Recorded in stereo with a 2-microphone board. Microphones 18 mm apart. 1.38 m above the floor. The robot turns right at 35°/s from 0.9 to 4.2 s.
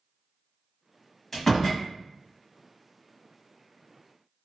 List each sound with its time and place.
1.3 s a door slam: 25° left (ahead or behind), 1.6 m; by 1.8 s 10° left (ahead or behind), 1.6 m